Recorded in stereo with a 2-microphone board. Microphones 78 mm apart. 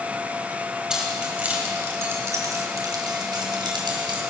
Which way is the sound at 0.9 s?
10° right (ahead or behind).